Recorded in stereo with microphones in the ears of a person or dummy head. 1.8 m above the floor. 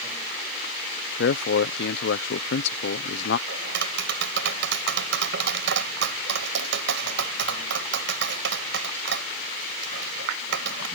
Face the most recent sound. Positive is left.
turn(degrees=-65)  # may be behind; listen again after turning